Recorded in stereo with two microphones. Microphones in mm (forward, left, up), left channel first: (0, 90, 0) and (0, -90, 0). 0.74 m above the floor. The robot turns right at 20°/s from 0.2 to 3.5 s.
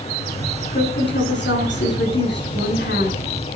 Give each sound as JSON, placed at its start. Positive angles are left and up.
{"t": 0.7, "sound": "a woman speaking", "azimuth_deg": 65, "distance_m": 8.5}